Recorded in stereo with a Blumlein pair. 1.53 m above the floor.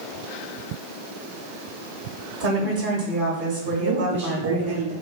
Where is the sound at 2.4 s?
55° right, 0.8 m.